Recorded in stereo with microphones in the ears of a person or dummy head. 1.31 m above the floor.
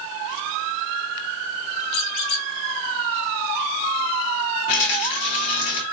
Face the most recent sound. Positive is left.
turn(degrees=35)  # may be behind; listen again after turning